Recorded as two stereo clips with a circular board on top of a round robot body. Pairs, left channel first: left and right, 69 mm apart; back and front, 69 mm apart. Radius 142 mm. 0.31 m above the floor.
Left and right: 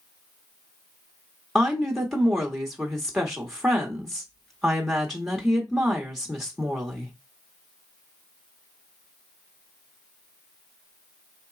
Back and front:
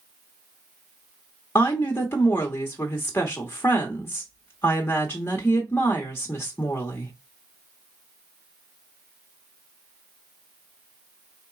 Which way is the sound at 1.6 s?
175° right.